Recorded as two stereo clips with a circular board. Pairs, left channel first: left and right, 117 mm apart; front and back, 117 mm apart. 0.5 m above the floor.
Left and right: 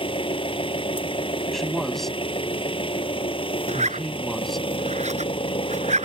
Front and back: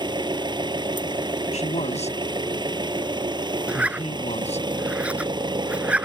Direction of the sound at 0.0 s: 130° left.